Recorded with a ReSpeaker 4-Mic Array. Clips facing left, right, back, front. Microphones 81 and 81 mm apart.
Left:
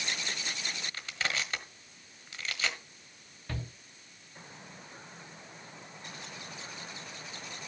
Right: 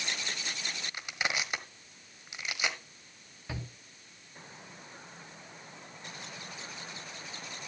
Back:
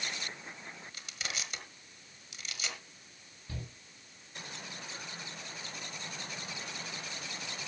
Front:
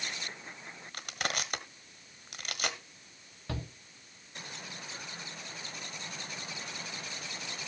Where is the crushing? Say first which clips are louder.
Right 2 dB, front 8 dB; 20° right, 1.3 m.